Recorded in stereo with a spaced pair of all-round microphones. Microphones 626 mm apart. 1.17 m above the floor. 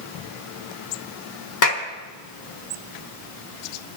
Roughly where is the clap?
Left.